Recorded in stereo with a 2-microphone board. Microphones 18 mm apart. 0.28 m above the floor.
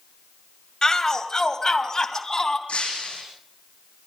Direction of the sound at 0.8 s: 30° left (ahead or behind).